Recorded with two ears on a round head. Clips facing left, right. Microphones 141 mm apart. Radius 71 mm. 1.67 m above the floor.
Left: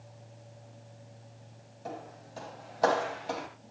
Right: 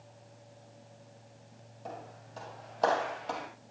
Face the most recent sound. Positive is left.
turn(degrees=5)  # may be behind; listen again after turning